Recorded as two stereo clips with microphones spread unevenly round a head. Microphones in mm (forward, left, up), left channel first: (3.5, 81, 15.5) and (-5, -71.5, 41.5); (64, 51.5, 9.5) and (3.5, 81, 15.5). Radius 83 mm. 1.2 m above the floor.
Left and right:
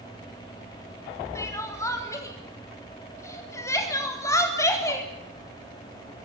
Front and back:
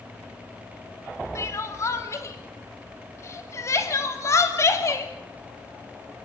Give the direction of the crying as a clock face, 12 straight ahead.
11 o'clock.